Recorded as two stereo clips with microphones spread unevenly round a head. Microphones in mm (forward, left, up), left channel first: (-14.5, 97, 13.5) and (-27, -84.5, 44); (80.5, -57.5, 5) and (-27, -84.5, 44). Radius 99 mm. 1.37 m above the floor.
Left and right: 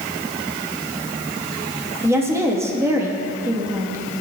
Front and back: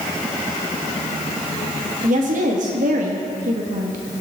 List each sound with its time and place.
2.0 s a woman speaking: 170° right, 1.9 m